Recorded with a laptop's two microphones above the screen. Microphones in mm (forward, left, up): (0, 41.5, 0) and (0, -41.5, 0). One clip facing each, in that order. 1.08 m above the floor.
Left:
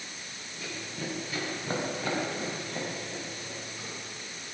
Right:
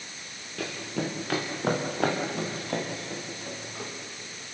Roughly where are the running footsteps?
Right.